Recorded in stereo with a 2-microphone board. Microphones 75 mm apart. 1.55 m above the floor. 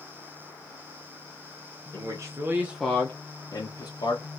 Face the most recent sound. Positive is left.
turn(degrees=70)  # may be behind; listen again after turning